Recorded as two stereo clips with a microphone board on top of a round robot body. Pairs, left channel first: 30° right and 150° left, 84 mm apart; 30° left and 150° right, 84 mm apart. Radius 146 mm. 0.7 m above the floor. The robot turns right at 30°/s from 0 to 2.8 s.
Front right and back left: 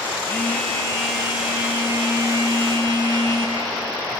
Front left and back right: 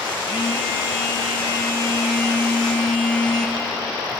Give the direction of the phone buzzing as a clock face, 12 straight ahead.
11 o'clock.